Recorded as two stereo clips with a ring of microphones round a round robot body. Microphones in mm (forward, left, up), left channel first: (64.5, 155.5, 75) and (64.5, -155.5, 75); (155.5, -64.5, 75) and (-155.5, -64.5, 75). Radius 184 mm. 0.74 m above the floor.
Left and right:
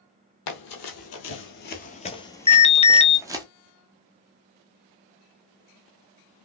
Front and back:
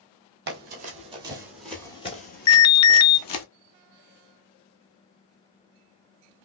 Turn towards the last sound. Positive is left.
turn(degrees=25)